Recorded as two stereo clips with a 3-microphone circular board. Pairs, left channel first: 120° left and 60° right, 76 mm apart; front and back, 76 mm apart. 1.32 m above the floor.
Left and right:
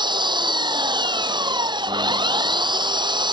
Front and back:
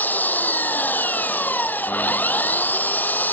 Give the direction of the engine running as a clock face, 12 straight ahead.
2 o'clock.